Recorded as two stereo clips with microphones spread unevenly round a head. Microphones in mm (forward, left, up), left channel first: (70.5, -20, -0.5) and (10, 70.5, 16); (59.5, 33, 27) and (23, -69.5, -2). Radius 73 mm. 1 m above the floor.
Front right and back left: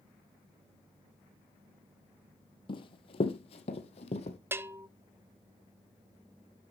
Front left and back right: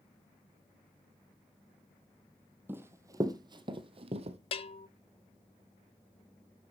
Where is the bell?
55° left, 0.7 m.